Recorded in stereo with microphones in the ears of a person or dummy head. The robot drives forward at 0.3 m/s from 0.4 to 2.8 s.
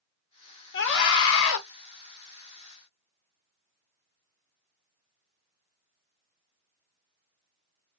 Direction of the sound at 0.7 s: 70° left (ahead or behind).